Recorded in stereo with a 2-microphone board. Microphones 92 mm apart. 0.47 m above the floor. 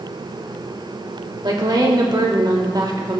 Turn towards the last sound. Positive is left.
turn(degrees=-50)  # may be behind; listen again after turning